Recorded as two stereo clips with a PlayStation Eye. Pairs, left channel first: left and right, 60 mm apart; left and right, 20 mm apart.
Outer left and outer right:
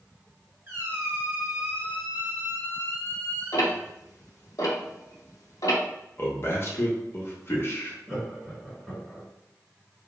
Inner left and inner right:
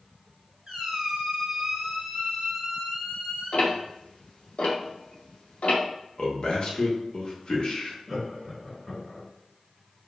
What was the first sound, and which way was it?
A squeak, 35° right (ahead or behind).